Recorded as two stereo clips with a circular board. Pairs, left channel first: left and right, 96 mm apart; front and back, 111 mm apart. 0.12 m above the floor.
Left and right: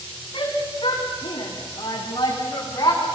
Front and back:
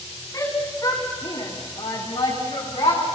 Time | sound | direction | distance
0.3 | a shout | 60° left | 8 m